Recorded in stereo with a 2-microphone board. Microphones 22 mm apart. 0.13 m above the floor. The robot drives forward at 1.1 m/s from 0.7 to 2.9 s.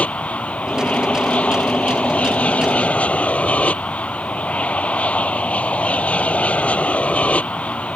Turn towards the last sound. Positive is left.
turn(degrees=65)  # may be behind; listen again after turning